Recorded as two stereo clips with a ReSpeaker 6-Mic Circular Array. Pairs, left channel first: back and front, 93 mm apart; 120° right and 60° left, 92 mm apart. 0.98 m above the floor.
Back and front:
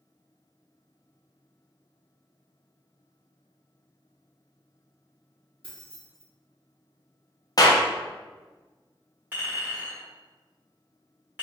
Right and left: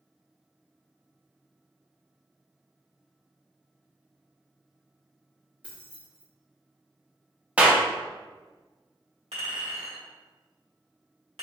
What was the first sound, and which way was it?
Keys jangling, 15° right.